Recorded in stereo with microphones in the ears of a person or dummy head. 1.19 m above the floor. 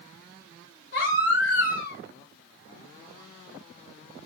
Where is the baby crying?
55° left (ahead or behind), 1.4 m.